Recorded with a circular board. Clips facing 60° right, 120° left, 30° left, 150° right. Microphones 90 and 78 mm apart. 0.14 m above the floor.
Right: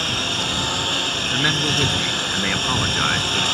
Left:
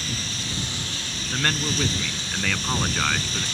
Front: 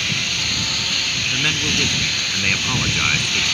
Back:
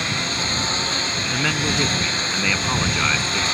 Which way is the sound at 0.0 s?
90° right.